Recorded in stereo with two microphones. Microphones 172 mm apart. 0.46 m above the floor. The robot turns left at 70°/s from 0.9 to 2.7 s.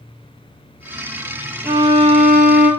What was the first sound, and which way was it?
A violin, 5° right.